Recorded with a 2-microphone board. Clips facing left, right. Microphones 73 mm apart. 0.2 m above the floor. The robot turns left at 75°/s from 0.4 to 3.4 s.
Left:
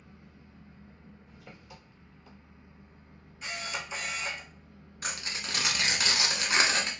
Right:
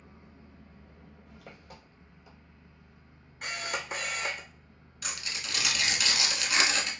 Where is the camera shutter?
60° right (ahead or behind), 0.6 m.